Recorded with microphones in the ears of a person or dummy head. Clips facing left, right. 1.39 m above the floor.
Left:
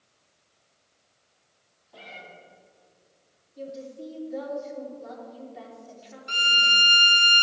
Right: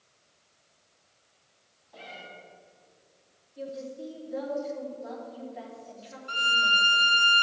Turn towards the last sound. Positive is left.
turn(degrees=35)  # may be behind; listen again after turning